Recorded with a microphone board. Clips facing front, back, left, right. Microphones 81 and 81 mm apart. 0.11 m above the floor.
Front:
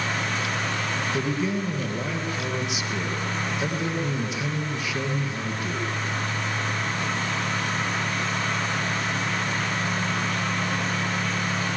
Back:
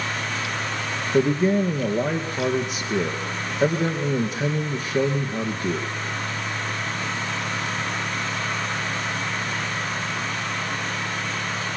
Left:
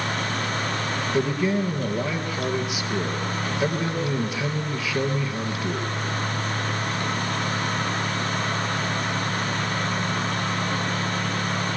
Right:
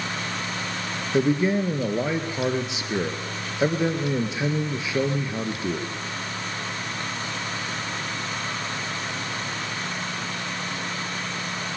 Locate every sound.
1.1 s a man speaking: 150° right, 2 m